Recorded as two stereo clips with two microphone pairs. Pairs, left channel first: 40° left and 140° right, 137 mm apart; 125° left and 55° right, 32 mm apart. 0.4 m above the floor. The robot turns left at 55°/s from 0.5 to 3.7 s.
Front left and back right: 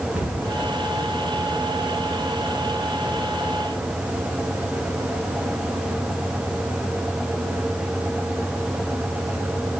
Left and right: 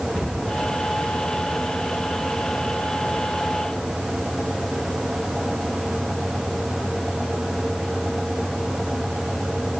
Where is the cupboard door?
135° left, 2.5 m.